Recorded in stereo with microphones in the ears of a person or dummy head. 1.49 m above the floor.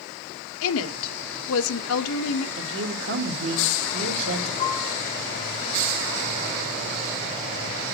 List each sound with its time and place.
0.6 s a woman speaking: 75° left (ahead or behind), 1.1 m
2.6 s a woman speaking: 70° right (ahead or behind), 2 m
4.6 s a piano: 40° left (ahead or behind), 1.2 m